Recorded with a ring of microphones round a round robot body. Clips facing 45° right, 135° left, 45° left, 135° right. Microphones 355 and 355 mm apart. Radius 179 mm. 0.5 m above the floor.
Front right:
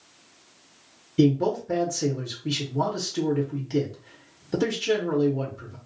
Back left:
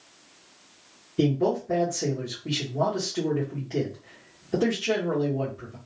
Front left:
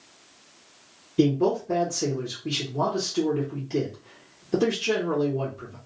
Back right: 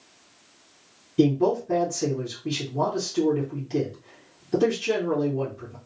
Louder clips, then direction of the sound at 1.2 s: Front right 3 dB, back right 1 dB; 55° right.